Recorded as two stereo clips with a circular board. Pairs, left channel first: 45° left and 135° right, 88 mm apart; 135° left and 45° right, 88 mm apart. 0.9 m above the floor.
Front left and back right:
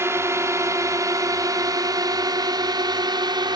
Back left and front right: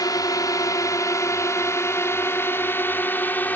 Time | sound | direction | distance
0.0 | a drone | 170° left | ?